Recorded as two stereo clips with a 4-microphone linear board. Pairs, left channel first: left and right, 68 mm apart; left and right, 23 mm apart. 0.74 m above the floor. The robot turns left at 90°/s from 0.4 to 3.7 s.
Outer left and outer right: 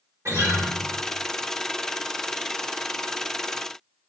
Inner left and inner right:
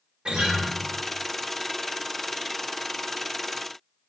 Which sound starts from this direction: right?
A guitar, at 0.2 s.